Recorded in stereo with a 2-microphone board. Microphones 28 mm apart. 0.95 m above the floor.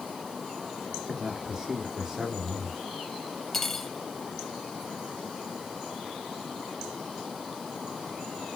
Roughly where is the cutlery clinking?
Centre.